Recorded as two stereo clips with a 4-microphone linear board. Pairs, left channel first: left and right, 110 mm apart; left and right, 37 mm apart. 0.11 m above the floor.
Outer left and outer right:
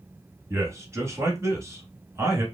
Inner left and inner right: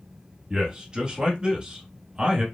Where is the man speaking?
25° right (ahead or behind), 1.2 m.